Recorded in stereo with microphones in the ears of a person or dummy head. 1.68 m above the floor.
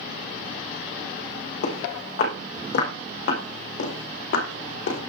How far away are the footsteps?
About 5.5 m.